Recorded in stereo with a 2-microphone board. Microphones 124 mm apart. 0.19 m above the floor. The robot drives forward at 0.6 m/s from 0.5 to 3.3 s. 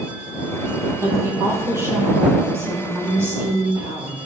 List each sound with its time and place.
1.0 s a woman speaking: 25° right (ahead or behind), 5.5 m; by 4.2 s 20° right (ahead or behind), 7 m